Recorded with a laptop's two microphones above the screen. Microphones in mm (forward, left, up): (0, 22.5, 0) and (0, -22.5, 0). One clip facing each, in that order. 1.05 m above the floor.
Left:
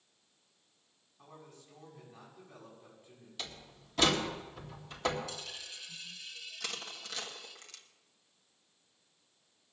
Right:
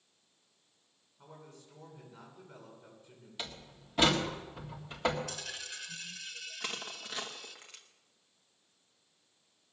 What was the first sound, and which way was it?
A man speaking, 30° left (ahead or behind).